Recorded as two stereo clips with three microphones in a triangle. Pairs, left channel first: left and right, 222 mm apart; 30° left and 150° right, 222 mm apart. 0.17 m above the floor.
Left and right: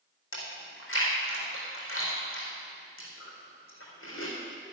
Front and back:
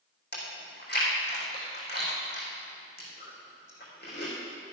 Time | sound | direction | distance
0.3 | chewing | 70° left | 4 m